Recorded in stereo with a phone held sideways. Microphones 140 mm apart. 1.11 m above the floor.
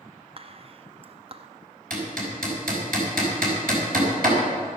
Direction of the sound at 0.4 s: 40° right (ahead or behind).